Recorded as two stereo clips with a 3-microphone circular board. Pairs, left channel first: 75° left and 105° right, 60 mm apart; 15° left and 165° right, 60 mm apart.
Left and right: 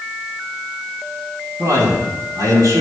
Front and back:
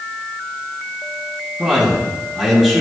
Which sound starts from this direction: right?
A man speaking, at 1.6 s.